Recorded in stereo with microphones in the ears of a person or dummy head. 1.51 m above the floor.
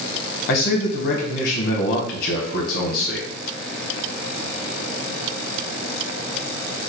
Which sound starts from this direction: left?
A man speaking, at 0.5 s.